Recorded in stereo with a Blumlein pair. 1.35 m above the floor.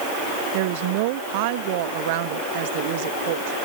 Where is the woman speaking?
50° right.